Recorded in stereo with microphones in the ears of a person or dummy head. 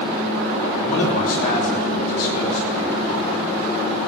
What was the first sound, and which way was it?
A man speaking, 50° left (ahead or behind).